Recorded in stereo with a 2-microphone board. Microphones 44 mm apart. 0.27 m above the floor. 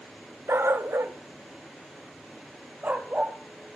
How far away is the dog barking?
About 0.9 m.